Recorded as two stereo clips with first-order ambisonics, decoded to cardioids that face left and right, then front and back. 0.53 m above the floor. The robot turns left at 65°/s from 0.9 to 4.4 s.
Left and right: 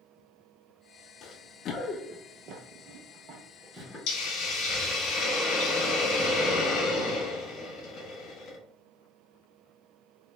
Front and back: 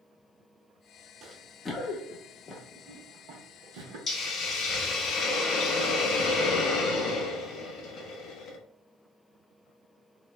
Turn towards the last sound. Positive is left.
turn(degrees=50)